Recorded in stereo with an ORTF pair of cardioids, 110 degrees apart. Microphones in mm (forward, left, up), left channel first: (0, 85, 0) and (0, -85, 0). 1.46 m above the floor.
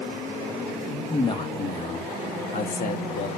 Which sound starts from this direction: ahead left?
A man speaking, at 1.1 s.